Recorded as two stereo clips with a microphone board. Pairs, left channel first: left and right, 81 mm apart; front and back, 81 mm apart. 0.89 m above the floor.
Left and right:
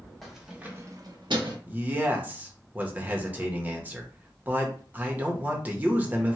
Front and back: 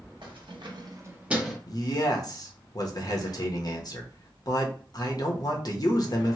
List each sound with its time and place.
0.2 s keys jangling: straight behind, 1.0 m; by 1.6 s 90° right, 0.8 m
1.7 s a man speaking: 25° right, 0.8 m